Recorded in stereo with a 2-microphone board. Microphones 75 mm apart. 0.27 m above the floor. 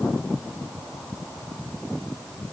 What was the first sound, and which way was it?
Only background noise.